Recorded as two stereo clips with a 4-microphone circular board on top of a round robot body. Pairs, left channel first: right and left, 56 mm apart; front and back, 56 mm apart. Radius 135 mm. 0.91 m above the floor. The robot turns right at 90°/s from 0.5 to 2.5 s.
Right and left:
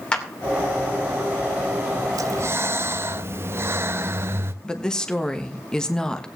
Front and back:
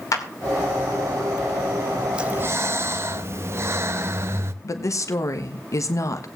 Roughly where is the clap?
Ahead.